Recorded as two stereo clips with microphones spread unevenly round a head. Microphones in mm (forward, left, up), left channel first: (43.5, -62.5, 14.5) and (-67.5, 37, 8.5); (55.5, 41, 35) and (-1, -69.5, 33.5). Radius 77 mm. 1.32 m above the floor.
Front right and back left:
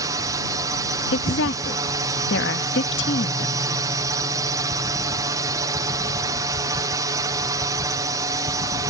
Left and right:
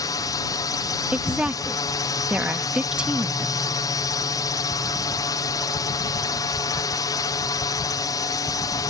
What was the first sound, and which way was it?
A drone, 95° left.